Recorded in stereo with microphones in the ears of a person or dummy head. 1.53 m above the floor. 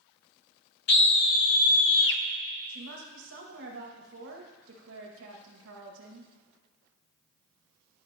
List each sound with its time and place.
0.9 s a scream: 55° left (ahead or behind), 1.0 m; by 2.2 s 65° left (ahead or behind), 0.8 m
2.7 s a woman speaking: 80° right, 2 m